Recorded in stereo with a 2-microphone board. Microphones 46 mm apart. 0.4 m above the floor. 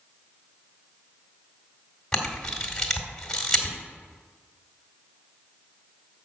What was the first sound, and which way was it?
A camera shutter, 10° left (ahead or behind).